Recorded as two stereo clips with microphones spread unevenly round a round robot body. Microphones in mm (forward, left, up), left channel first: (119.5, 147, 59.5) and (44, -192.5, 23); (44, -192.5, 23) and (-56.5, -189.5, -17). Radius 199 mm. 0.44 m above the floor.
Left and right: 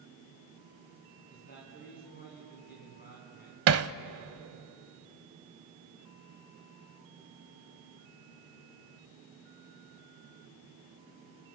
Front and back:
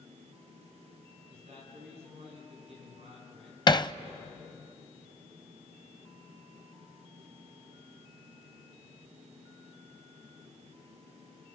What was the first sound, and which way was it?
A man speaking, 145° left.